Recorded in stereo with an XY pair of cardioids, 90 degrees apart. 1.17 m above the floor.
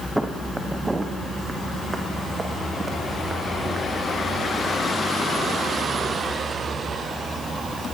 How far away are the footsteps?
About 3.5 m.